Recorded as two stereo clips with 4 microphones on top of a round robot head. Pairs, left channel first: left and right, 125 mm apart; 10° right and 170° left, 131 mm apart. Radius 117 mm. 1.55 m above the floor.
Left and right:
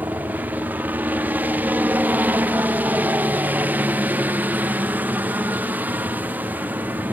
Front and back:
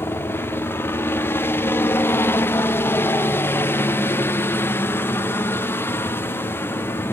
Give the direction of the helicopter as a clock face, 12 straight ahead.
1 o'clock.